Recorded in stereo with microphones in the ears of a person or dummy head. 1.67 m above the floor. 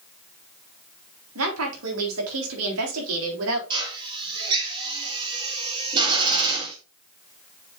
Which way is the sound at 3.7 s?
25° right (ahead or behind).